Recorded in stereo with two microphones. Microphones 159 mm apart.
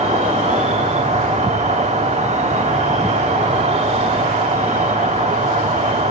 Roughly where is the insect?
Right.